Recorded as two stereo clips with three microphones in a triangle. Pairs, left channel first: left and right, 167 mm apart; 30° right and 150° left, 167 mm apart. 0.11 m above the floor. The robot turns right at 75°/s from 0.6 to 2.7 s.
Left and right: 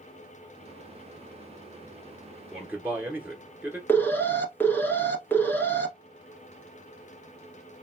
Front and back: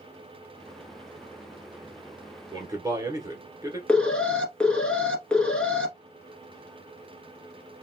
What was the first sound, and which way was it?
A man speaking, 175° right.